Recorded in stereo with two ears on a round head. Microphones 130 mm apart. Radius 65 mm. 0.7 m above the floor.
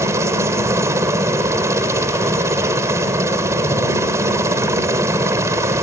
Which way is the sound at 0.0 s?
20° right (ahead or behind).